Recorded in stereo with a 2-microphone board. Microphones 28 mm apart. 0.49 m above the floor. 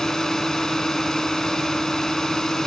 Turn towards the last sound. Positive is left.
turn(degrees=20)  # may be behind; listen again after turning